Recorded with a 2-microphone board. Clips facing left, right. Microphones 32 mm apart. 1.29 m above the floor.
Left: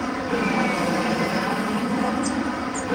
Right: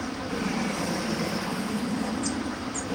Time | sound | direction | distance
0.0 | an aircraft | 60° left (ahead or behind) | ?